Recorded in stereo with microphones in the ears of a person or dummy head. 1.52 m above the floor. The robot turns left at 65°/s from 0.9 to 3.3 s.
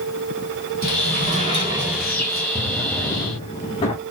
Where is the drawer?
Straight behind, 0.8 m; by 4.0 s 130° left, 0.8 m.